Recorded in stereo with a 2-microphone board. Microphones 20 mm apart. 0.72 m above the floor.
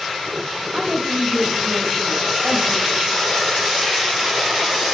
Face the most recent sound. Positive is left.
turn(degrees=-45)  # may be behind; listen again after turning